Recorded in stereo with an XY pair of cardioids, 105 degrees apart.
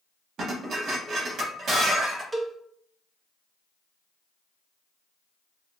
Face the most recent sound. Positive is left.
turn(degrees=-25)